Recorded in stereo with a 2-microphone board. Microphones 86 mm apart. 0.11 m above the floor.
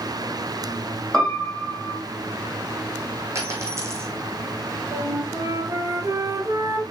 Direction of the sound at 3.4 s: 35° right (ahead or behind).